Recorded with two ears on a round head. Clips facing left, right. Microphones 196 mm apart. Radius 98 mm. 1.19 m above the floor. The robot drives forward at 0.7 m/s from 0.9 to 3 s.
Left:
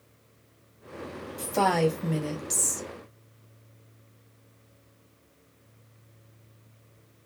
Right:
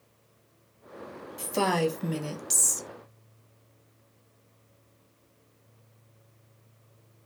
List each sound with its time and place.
1.4 s a woman speaking: 5° right (ahead or behind), 1.3 m; by 2.9 s 20° right (ahead or behind), 0.5 m